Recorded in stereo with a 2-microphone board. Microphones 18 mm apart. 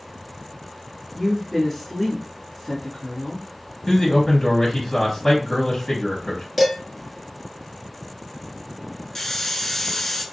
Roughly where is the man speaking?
Centre.